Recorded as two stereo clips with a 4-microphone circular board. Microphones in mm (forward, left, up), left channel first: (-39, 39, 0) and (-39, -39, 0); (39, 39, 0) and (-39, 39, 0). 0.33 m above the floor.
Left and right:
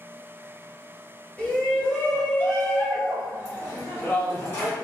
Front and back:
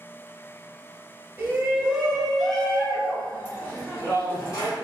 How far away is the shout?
About 0.9 m.